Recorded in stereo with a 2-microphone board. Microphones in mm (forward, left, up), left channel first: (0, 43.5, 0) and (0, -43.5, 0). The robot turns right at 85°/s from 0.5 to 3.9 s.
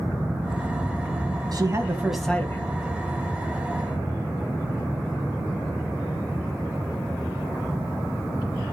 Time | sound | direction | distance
1.5 | a man speaking | 55° right | 2 m